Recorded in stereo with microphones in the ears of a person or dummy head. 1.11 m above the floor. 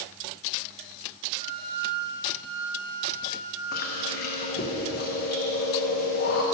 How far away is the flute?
About 2.5 m.